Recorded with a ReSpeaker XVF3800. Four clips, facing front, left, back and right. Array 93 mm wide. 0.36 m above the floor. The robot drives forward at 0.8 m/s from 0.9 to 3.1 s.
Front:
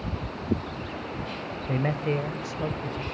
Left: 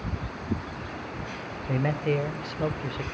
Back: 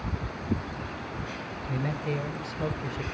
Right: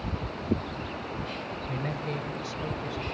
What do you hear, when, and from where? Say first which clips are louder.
1.7 s a man speaking: left 9 dB, front 4 dB; 40° left, 1.4 m; by 3.0 s 110° left, 1.1 m